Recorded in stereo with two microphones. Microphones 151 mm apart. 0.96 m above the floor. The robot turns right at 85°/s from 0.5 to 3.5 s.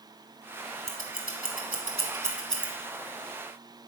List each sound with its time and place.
0.9 s scissors: 45° right (ahead or behind), 1.8 m; by 2.7 s 20° left (ahead or behind), 1.8 m